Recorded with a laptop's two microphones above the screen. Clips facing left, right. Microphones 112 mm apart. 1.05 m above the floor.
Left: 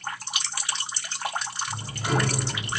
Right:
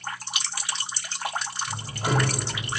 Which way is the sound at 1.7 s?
40° right (ahead or behind).